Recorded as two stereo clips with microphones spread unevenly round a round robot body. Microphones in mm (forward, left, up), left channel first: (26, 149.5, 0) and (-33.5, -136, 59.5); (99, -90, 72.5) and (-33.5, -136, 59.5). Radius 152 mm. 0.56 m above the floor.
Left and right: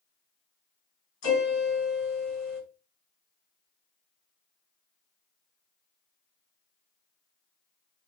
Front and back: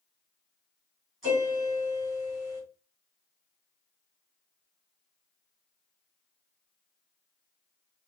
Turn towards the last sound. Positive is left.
turn(degrees=115)